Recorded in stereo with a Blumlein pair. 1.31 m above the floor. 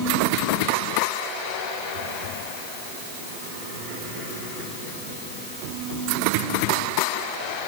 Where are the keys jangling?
No keys jangling in this recording.